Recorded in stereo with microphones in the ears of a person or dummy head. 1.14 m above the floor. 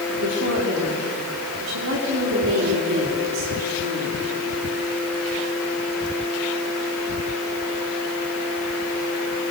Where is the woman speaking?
65° right (ahead or behind), 3 m.